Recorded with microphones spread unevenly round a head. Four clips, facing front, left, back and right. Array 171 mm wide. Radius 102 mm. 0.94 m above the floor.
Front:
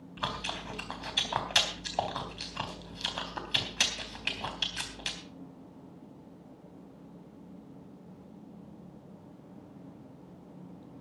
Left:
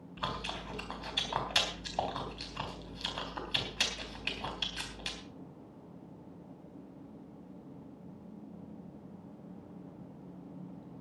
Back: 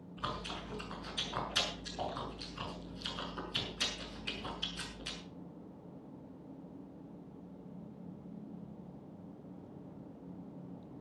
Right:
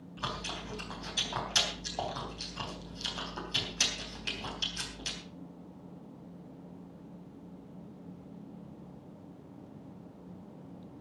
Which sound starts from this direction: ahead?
Chewing, at 0.2 s.